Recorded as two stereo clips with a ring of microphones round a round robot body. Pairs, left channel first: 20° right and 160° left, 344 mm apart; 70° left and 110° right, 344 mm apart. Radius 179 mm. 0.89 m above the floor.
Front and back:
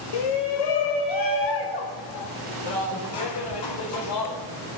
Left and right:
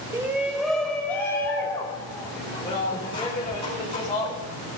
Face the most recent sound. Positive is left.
turn(degrees=-5)